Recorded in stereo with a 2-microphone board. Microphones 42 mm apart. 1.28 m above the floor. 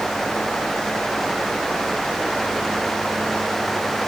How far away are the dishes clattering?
I don't hear dishes clattering.